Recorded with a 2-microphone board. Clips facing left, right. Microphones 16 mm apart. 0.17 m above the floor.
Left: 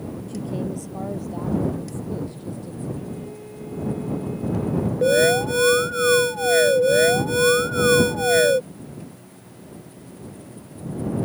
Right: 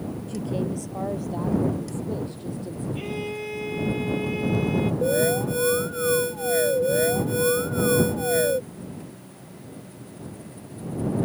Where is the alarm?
40° left (ahead or behind).